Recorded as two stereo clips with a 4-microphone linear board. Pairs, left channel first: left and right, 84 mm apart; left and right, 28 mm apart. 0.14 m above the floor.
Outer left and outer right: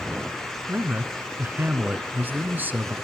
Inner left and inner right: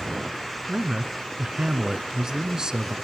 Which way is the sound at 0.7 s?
25° right (ahead or behind).